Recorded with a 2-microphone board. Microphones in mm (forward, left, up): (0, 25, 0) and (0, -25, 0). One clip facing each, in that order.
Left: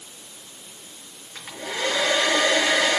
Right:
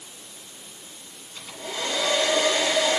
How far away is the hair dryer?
About 4 m.